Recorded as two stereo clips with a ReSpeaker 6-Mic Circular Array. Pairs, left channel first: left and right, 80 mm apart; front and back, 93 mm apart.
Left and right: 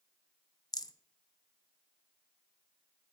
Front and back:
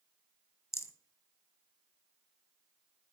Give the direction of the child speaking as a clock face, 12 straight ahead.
I don't hear a child speaking.